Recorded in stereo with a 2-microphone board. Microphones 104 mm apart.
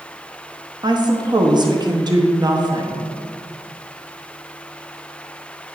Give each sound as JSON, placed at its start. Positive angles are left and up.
{"t": 0.8, "sound": "a woman speaking", "side_deg": -40, "distance_m": 0.7}